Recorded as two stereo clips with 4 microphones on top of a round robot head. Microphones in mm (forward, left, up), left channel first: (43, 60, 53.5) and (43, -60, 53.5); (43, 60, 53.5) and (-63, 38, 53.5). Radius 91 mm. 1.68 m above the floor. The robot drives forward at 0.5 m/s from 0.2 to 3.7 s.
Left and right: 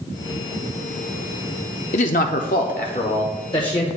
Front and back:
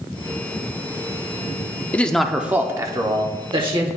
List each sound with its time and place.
1.9 s a man speaking: 85° left, 0.5 m; by 4.0 s 150° left, 1.0 m